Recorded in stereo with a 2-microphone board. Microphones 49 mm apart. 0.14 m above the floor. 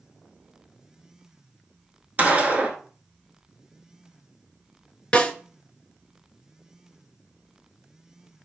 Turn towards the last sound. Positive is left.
turn(degrees=25)  # may be behind; listen again after turning